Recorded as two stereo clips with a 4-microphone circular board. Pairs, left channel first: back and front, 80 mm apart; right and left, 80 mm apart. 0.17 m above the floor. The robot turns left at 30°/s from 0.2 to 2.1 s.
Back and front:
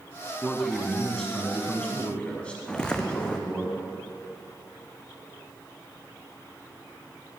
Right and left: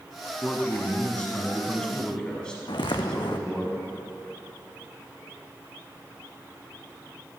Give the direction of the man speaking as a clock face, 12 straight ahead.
3 o'clock.